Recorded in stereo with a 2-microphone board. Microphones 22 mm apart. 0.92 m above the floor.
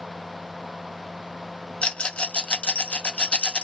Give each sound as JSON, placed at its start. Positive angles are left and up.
{"t": 1.8, "sound": "a rattle", "side_deg": 50, "distance_m": 0.6}